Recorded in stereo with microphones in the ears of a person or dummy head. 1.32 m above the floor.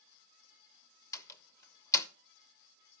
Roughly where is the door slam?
Centre.